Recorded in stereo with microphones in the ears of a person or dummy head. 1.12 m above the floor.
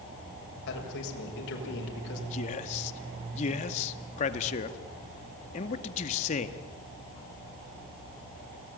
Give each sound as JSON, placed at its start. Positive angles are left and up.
{"t": 0.7, "sound": "a man speaking", "side_deg": 65, "distance_m": 6.5}
{"t": 2.3, "sound": "a man speaking", "side_deg": 40, "distance_m": 2.0}